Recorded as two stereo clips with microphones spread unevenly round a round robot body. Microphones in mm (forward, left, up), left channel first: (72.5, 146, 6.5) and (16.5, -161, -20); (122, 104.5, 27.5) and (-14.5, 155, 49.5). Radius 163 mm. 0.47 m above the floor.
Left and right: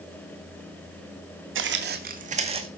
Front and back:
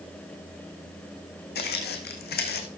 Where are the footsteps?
45° right, 1.8 m; by 2.7 s 25° right, 2.0 m.